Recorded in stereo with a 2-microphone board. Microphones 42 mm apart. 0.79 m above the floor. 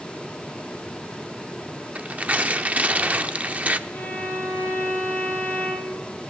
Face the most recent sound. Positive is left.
turn(degrees=55)  # may be behind; listen again after turning